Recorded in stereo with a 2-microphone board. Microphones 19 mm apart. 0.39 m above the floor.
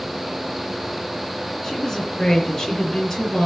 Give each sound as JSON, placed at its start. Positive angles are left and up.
{"t": 1.6, "sound": "a woman speaking", "side_deg": 15, "distance_m": 6.5}